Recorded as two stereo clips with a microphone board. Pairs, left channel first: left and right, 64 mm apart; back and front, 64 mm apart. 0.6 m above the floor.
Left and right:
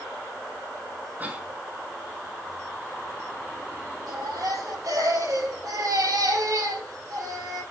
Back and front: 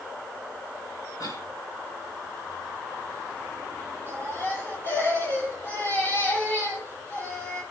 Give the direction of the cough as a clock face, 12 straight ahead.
5 o'clock.